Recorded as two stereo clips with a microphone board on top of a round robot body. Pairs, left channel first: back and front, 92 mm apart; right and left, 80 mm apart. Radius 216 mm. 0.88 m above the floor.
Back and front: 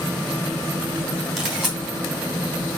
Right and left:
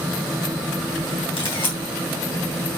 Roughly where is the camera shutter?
Right.